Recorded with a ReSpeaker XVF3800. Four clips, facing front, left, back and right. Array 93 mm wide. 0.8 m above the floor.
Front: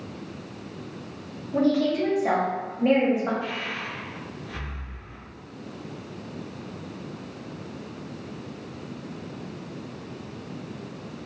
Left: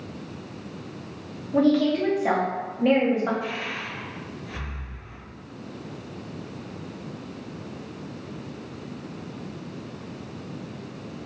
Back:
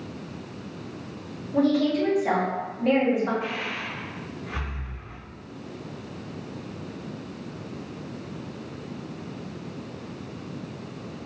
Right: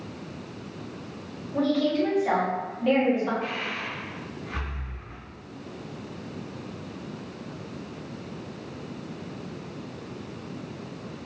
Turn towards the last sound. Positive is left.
turn(degrees=-140)